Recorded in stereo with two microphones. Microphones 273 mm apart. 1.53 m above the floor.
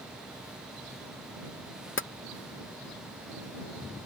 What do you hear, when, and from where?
2.0 s tapping: 45° left (ahead or behind)